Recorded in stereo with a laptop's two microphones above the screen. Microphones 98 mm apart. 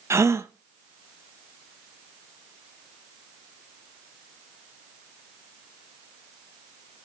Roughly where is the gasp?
Right.